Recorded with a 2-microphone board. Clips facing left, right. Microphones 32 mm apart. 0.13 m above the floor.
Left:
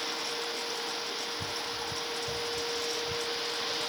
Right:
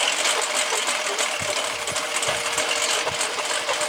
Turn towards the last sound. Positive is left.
turn(degrees=-70)  # may be behind; listen again after turning